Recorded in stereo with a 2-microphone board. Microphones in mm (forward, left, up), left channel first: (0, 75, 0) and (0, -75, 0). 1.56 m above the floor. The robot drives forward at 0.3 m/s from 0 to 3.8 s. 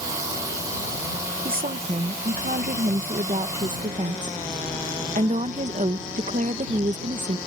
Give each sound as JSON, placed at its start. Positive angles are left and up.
{"t": 1.4, "sound": "a woman speaking", "side_deg": -75}